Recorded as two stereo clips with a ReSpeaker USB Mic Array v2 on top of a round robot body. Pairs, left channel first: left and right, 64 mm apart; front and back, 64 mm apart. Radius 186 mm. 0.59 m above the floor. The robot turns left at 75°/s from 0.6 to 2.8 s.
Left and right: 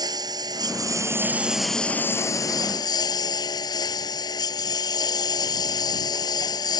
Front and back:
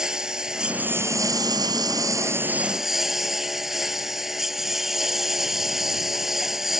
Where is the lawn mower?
100° right; by 6.8 s 95° left.